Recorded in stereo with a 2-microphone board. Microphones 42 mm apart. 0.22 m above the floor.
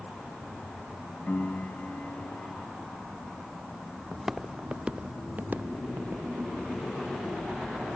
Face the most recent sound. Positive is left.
turn(degrees=-55)  # may be behind; listen again after turning